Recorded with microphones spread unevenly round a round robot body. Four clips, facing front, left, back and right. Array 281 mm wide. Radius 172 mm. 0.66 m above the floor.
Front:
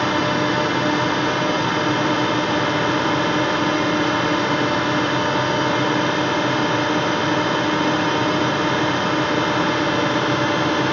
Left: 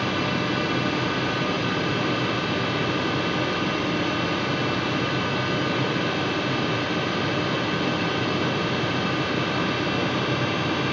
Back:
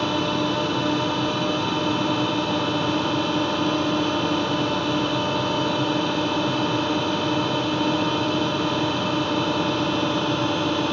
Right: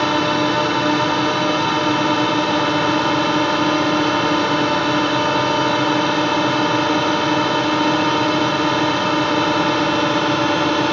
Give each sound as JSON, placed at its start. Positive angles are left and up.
{"t": 0.0, "sound": "a drone", "azimuth_deg": -70}